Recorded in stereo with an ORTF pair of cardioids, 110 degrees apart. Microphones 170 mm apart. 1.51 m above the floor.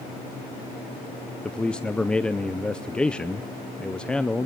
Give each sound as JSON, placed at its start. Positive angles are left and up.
{"t": 1.4, "sound": "a man speaking", "azimuth_deg": 5, "distance_m": 0.5}